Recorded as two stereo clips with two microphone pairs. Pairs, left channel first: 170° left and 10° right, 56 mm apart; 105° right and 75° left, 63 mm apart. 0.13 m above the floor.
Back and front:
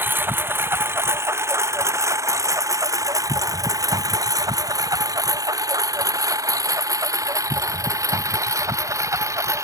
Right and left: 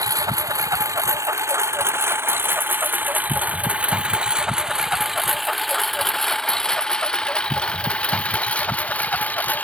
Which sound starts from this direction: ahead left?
A lawn mower, at 0.0 s.